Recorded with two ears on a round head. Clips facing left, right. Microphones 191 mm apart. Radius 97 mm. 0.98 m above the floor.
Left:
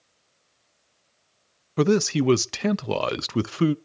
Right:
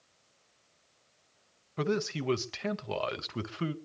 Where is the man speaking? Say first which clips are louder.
Left 11 dB; 55° left (ahead or behind), 0.7 m.